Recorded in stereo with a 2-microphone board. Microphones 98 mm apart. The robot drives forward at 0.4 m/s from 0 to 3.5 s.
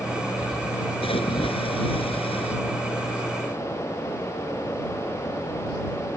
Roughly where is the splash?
Left.